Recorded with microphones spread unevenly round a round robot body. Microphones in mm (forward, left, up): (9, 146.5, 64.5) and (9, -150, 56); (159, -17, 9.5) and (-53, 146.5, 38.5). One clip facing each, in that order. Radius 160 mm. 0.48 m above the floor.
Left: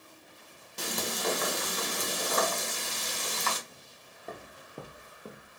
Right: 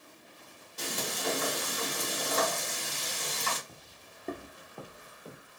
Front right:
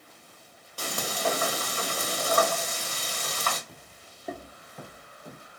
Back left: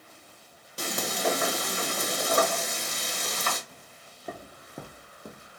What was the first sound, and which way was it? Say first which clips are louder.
Frying: left 2 dB, back left 1 dB; 75° left.